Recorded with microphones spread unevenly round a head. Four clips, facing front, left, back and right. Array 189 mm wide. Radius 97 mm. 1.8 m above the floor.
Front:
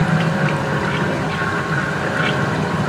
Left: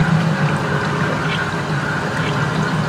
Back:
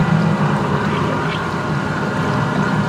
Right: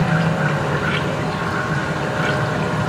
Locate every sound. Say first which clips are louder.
0.0 s a machine running: left 1 dB, back 2 dB; 170° left, 6 m